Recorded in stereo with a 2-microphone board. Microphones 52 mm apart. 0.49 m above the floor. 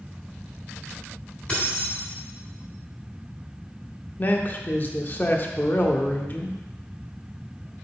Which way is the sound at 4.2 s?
35° left (ahead or behind).